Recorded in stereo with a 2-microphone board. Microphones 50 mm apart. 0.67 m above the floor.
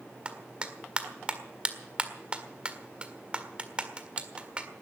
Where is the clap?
25° right (ahead or behind), 1.7 m.